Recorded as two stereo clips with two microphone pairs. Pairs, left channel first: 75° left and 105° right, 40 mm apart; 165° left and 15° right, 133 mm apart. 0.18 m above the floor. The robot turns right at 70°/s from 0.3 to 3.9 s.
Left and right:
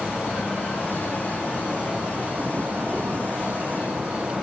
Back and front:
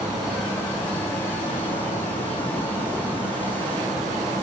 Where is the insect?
65° left, 3 m; by 4.4 s 45° right, 3 m.